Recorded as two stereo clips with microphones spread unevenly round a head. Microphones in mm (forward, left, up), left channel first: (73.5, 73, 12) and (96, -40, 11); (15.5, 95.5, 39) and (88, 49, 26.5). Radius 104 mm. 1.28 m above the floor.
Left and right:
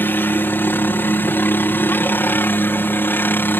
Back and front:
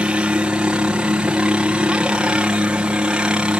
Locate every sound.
0.0 s a helicopter: 35° left